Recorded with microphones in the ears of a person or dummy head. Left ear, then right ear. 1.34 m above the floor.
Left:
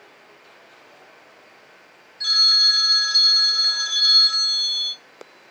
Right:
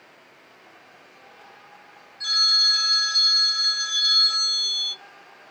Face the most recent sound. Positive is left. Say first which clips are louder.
# left 3 dB
turn(degrees=5)  # may be behind; listen again after turning